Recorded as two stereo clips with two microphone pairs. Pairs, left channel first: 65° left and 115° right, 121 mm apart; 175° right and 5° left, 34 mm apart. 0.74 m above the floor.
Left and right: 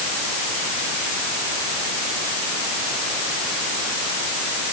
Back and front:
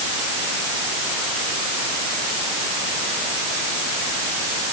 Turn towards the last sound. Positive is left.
No sound to turn to.